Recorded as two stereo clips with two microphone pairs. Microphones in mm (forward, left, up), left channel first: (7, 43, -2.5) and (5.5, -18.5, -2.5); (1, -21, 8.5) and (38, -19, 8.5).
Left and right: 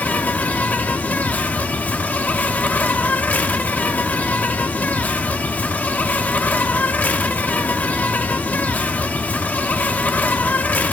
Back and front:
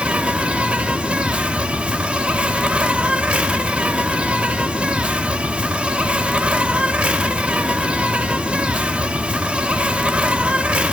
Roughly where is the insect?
Ahead left.